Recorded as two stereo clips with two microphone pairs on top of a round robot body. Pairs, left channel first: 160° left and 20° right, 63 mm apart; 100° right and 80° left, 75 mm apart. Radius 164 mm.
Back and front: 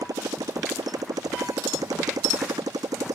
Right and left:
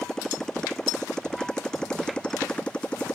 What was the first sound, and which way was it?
A motorcycle, 20° right.